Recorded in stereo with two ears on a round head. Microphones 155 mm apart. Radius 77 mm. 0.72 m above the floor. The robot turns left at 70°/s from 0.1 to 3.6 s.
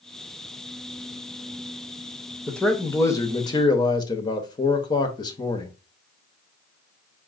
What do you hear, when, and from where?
2.5 s a man speaking: centre (ahead or behind), 0.7 m; by 5.8 s 25° left (ahead or behind), 0.7 m